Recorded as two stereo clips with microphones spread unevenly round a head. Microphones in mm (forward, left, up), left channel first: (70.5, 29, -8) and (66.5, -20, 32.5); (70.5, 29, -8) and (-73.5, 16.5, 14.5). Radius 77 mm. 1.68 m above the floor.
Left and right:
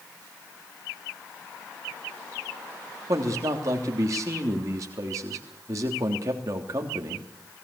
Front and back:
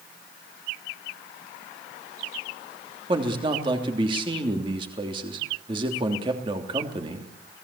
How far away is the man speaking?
About 3 m.